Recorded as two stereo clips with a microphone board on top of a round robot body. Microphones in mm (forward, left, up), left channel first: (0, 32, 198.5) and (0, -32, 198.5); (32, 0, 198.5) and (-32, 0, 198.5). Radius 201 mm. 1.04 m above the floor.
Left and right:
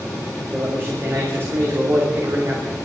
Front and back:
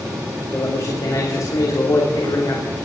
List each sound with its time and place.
0.5 s a man speaking: 35° right, 3 m